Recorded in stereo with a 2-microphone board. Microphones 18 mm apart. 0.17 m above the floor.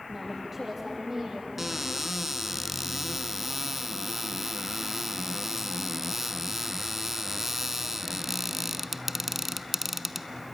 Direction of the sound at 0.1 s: 15° right (ahead or behind).